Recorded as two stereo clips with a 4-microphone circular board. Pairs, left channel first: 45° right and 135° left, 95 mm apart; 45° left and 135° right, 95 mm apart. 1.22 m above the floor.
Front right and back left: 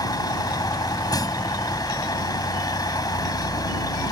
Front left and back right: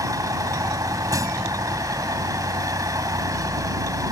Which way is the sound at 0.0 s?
85° right.